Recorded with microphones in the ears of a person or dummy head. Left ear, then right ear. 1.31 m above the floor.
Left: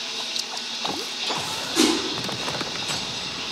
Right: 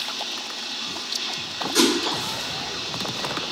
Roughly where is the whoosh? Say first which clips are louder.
Right 1 dB; right.